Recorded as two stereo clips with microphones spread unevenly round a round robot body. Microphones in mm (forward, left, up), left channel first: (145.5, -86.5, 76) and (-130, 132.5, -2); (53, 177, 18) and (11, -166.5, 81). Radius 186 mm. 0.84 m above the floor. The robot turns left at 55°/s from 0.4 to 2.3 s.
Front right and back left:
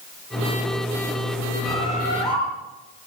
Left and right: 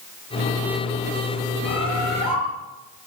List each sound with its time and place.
1.6 s a bird: 50° left, 8 m; by 2.4 s 15° left, 8 m